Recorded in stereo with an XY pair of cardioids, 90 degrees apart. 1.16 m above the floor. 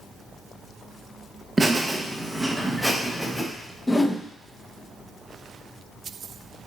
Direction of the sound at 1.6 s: 30° right.